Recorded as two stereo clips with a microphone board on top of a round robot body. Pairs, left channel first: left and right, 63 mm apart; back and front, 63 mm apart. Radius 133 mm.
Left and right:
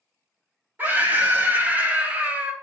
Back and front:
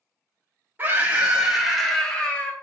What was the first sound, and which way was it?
A scream, 45° right.